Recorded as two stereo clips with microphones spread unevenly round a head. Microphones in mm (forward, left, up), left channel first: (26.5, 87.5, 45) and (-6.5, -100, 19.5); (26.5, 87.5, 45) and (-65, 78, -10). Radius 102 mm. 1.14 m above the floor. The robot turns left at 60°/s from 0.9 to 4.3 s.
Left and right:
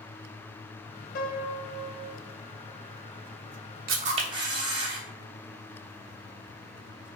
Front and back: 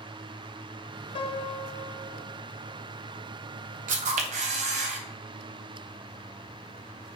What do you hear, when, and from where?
1.1 s a piano: 35° left, 0.6 m; by 2.2 s 25° right, 0.6 m
3.9 s a camera shutter: 145° right, 0.9 m; by 5.0 s 170° right, 0.9 m